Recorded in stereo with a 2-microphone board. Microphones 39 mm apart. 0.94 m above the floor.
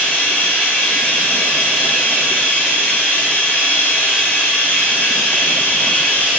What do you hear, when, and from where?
0.0 s running water: 45° left (ahead or behind), 1.7 m